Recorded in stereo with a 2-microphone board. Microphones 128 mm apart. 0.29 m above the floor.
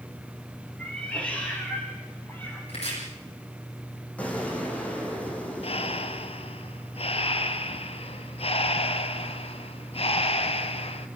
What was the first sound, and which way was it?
A cat meowing, 10° left (ahead or behind).